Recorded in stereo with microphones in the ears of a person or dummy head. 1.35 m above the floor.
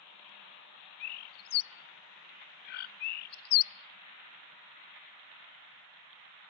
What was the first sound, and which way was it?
A bird, 50° left (ahead or behind).